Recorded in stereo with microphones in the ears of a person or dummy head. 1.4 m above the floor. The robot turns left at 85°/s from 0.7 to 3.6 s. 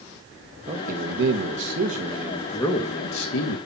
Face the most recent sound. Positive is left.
turn(degrees=75)